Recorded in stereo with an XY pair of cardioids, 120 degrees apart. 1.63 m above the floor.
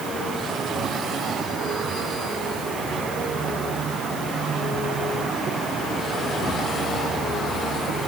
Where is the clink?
I don't hear a clink.